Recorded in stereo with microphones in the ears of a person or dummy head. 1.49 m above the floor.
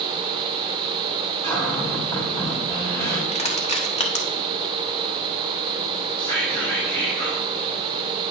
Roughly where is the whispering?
Centre.